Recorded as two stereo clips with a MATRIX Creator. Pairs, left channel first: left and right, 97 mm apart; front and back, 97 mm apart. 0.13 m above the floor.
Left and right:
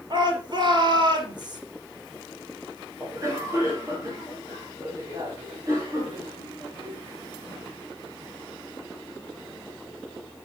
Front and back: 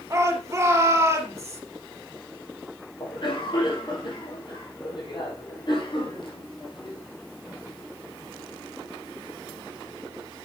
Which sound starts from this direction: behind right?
A shout, at 0.1 s.